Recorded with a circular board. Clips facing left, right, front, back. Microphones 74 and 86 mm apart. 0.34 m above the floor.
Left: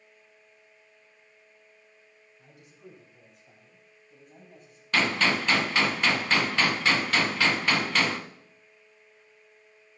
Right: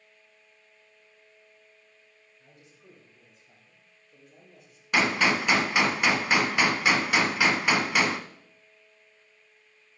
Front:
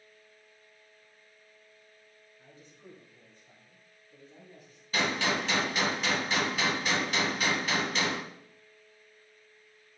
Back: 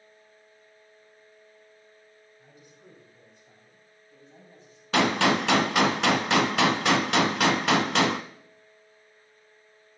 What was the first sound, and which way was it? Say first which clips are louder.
A man speaking: left 6 dB, front 2 dB; 105° left.